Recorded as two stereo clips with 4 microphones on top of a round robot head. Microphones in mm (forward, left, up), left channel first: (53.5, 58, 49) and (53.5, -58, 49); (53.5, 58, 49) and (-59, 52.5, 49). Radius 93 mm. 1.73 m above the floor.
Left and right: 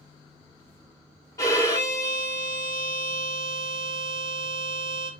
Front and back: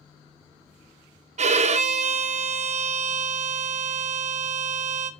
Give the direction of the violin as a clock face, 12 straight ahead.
7 o'clock.